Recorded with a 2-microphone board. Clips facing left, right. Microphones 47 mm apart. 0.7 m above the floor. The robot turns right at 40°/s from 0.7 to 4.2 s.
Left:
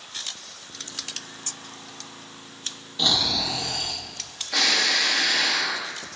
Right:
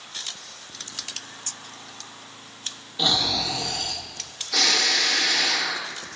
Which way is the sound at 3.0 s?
15° right.